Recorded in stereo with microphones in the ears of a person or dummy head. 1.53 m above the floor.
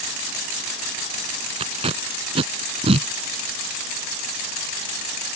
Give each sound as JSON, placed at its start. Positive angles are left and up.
{"t": 1.6, "sound": "tape being pulled", "side_deg": -30}